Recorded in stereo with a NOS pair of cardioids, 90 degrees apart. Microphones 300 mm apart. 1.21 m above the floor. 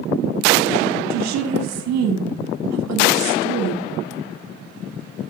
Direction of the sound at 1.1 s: 65° right.